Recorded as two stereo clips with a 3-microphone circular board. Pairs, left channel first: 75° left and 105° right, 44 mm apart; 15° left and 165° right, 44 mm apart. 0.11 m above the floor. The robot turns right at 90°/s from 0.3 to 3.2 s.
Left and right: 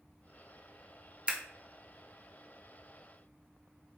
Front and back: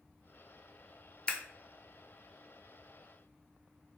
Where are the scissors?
50° right, 0.5 m; by 1.4 s 40° right, 0.5 m.